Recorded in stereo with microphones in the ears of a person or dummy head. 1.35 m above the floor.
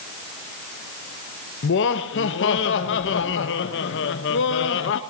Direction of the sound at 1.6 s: 55° left (ahead or behind).